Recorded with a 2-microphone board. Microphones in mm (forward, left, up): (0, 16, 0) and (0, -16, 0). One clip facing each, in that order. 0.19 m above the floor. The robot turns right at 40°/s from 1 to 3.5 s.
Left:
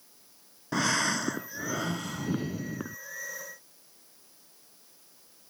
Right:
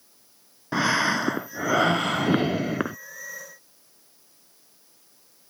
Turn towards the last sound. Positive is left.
turn(degrees=-55)